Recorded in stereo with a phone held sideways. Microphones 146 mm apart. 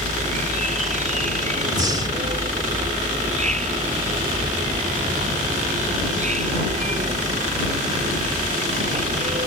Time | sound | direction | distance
0.0 | an insect | 60° right (ahead or behind) | ?
1.7 | breathing | 30° right (ahead or behind) | ?